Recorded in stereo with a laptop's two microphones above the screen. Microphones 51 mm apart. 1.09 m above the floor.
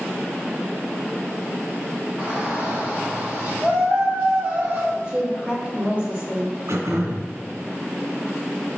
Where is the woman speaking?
35° right (ahead or behind), 2.5 m.